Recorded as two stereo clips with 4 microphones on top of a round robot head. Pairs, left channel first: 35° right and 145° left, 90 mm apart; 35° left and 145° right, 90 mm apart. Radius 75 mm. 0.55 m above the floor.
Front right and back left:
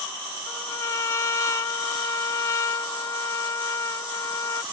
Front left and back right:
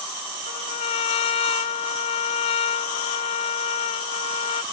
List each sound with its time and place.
0.5 s a trumpet: 25° left